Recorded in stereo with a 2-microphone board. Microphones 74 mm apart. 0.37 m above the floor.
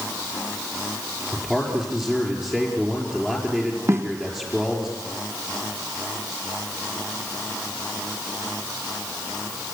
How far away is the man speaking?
About 5.5 m.